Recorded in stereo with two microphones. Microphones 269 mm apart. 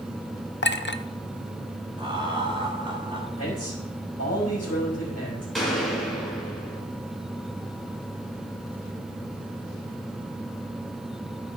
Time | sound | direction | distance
0.6 | a clink | 40° left (ahead or behind) | 0.5 m
2.0 | laughter | 20° right (ahead or behind) | 2 m
3.4 | a man speaking | 60° left (ahead or behind) | 4 m
5.5 | a gunshot | centre (ahead or behind) | 3 m